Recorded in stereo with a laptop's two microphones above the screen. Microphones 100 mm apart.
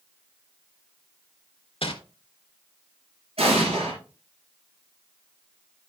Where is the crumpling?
65° left (ahead or behind), 1.5 m.